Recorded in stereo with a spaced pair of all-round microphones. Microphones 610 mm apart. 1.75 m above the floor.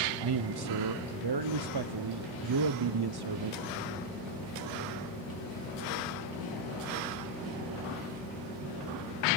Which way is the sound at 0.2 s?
45° right (ahead or behind).